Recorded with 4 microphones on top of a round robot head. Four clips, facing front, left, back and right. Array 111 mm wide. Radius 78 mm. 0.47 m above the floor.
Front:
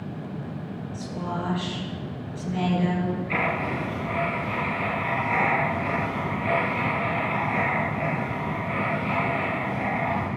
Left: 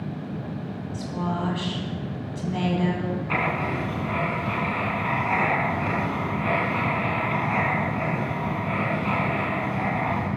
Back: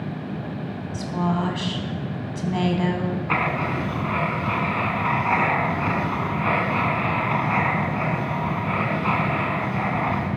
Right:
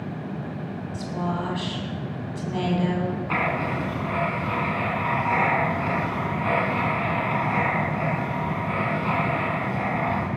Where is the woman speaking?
170° right, 4.5 m.